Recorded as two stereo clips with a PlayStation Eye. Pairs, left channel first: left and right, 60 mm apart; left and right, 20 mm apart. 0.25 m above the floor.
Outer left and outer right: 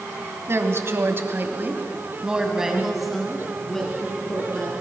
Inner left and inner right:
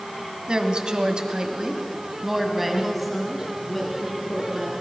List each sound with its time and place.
0.5 s a woman speaking: 45° right (ahead or behind), 2 m; by 4.7 s 15° left (ahead or behind), 4 m